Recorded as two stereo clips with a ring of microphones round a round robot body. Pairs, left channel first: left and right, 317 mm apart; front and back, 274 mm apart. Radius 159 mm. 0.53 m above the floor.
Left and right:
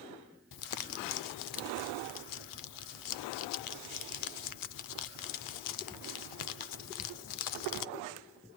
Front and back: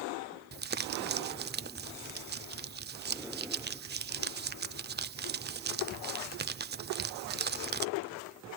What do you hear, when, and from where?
0.5 s crumpling: 120° left, 0.5 m